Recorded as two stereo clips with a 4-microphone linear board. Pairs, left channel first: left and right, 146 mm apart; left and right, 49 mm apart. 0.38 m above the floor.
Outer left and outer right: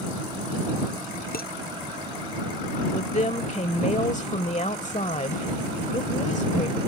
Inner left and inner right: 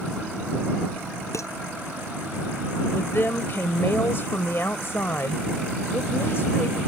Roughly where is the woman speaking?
Left.